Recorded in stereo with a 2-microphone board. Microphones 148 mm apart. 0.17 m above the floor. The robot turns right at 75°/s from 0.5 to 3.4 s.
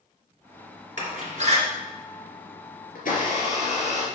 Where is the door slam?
55° right (ahead or behind), 2 m; by 1.6 s 40° right (ahead or behind), 2 m.